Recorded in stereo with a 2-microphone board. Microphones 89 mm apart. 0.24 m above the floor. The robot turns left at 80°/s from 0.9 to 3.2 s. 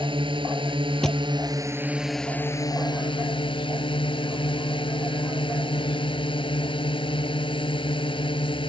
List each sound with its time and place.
0.0 s a drone: 80° right; by 8.7 s 95° left
1.0 s a thud: 10° left (ahead or behind); by 1.2 s 5° right (ahead or behind)